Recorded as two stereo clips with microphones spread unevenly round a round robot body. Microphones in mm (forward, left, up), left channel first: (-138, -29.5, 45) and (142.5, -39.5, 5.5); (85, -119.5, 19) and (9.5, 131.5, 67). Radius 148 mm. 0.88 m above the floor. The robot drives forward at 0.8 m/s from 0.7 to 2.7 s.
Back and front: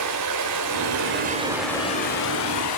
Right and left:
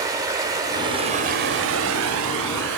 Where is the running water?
35° left, 1.0 m; by 2.8 s 150° left, 1.1 m.